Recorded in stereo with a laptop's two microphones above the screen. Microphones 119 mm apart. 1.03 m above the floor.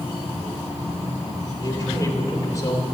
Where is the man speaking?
25° left (ahead or behind), 2.5 m.